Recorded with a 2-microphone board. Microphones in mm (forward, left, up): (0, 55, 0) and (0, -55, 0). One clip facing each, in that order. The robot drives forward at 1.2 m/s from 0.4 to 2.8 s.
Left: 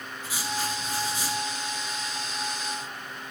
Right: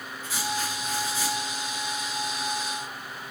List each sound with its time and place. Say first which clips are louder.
0.2 s writing: right 1 dB; 10° left (ahead or behind), 6.5 m; by 1.4 s 15° left (ahead or behind), 5 m